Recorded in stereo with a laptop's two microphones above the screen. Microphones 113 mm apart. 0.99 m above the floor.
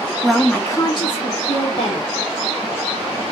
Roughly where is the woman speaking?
Centre.